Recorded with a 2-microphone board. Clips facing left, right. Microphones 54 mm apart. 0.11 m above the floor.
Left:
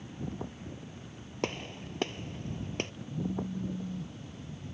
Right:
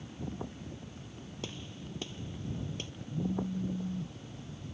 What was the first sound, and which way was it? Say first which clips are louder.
A gunshot: left 9 dB; 60° left (ahead or behind).